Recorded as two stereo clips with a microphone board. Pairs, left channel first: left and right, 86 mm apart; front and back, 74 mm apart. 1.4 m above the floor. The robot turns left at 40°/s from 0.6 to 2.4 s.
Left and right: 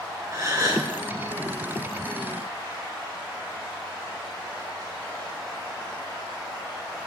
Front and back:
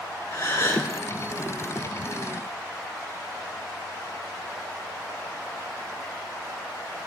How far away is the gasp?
About 2.5 m.